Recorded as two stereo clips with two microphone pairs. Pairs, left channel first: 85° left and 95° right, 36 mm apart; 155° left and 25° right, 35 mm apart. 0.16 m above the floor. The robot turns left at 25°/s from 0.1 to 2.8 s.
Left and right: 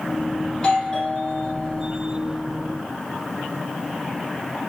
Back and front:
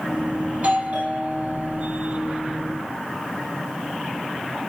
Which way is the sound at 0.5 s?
20° left.